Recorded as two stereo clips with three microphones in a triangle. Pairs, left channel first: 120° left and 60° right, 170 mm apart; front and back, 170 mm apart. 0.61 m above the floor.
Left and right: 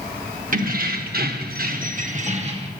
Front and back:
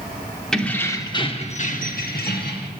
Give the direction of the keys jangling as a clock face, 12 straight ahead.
3 o'clock.